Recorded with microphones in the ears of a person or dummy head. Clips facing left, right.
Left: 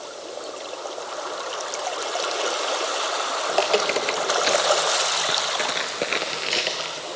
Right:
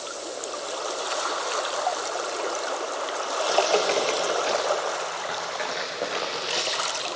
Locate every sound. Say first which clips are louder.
3.5 s footsteps: even; 15° left (ahead or behind), 2.5 m; by 7.0 s 20° left (ahead or behind), 2.5 m